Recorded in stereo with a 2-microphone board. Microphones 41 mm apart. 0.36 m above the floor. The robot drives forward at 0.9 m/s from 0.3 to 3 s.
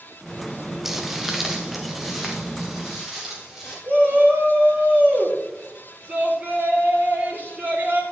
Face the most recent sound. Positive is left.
turn(degrees=-50)  # may be behind; listen again after turning